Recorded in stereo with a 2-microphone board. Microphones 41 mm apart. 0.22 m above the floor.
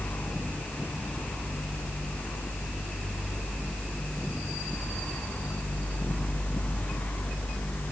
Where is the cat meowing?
No cat meowing in this recording.